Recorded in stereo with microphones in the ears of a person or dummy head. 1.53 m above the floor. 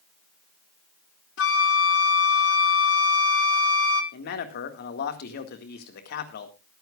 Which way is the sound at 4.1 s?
55° left (ahead or behind).